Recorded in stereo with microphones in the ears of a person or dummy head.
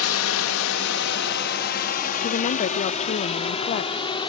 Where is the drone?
85° left; by 4.3 s 30° left (ahead or behind).